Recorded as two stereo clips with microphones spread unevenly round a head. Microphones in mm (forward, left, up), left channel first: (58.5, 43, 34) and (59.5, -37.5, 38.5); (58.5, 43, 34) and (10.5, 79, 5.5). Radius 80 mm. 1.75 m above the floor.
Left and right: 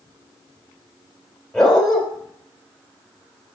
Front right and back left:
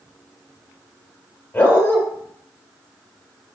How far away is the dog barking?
About 3 m.